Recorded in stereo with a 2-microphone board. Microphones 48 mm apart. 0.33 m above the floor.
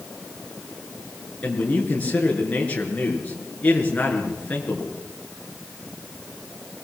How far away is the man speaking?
About 6.5 m.